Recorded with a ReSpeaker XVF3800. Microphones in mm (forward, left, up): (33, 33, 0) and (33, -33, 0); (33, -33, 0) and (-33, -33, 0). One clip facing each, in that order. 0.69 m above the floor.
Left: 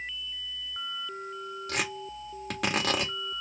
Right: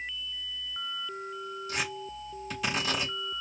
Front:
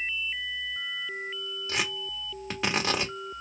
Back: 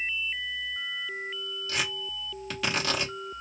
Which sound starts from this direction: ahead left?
Tearing paper, at 1.7 s.